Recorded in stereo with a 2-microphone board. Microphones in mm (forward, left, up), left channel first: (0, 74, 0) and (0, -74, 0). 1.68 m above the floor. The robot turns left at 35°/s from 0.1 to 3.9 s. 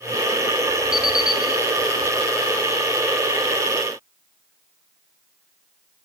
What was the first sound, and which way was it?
An alarm clock, 60° left (ahead or behind).